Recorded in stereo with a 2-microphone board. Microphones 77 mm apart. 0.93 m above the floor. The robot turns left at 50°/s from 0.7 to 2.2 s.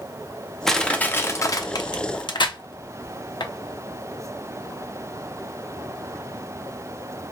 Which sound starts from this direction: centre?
Crushing, at 0.7 s.